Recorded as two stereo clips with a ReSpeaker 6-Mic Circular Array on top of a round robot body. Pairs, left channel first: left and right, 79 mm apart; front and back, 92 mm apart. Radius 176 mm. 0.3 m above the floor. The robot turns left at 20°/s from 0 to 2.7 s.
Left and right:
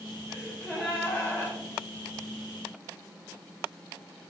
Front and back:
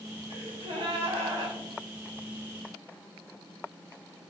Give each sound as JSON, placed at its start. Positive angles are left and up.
{"t": 0.3, "sound": "a gasp", "azimuth_deg": 180, "distance_m": 0.6}